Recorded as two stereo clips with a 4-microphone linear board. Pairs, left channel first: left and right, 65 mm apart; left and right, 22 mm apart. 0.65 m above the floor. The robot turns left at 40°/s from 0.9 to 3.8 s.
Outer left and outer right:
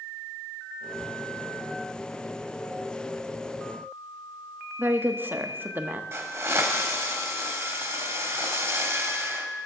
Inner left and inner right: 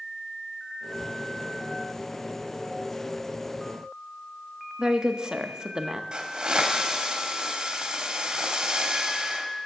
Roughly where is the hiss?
Right.